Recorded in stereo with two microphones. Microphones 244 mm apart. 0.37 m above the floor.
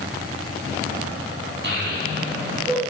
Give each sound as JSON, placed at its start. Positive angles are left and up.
{"t": 1.6, "sound": "a child speaking", "side_deg": -50, "distance_m": 2.0}